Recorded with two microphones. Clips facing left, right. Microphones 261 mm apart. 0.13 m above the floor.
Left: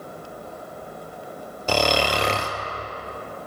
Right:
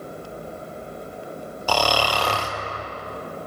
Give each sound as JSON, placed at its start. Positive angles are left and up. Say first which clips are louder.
{"t": 1.7, "sound": "snoring", "louder": "left 2 dB", "side_deg": 25, "distance_m": 0.6}